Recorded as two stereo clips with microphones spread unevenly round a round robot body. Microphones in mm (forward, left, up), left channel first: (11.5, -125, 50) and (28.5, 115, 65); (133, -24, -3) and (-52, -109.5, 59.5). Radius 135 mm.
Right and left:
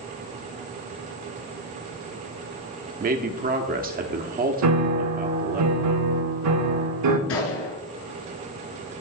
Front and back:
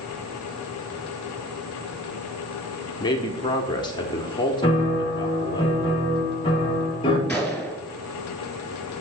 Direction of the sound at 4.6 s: 90° left.